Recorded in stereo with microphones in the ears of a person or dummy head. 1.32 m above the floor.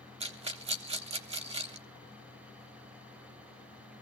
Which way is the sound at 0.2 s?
30° right (ahead or behind).